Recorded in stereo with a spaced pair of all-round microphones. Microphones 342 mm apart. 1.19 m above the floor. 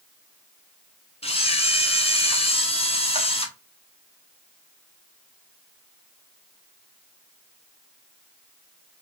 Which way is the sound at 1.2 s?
20° left (ahead or behind).